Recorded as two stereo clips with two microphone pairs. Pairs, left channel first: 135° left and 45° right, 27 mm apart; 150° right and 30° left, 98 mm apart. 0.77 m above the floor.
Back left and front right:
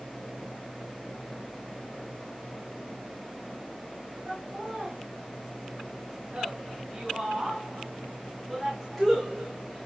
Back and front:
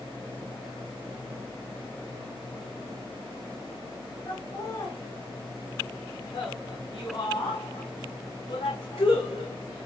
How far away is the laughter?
About 3.5 m.